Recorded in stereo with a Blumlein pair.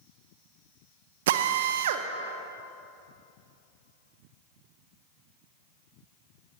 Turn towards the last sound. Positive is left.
turn(degrees=-55)